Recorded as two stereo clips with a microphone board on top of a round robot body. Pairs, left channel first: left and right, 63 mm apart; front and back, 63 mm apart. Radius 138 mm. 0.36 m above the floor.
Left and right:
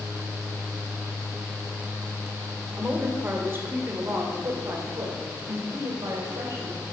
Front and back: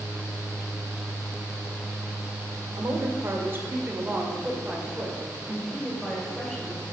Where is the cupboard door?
No cupboard door in this recording.